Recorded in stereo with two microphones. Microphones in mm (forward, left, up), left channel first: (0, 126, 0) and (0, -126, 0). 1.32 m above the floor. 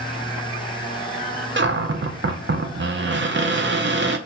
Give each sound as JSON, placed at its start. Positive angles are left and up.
{"t": 1.6, "sound": "a cupboard door", "side_deg": -45, "distance_m": 0.5}